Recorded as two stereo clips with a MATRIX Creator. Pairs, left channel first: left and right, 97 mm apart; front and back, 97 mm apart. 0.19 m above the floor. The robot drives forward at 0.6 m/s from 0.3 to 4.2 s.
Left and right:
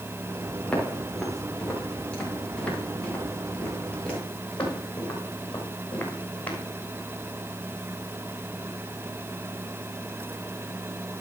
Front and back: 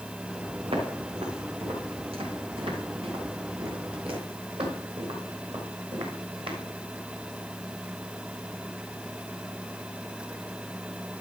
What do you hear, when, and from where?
0.7 s footsteps: 170° left, 4.5 m; by 6.6 s 160° left, 3.5 m